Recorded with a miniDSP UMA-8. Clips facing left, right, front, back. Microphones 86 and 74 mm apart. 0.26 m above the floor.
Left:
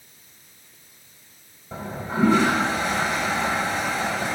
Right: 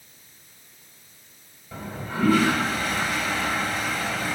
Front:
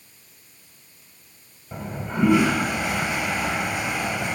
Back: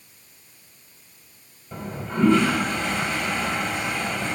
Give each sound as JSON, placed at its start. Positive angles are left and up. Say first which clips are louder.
{"t": 1.7, "sound": "a toilet flushing", "louder": "left 4 dB, even", "azimuth_deg": 65, "distance_m": 1.7}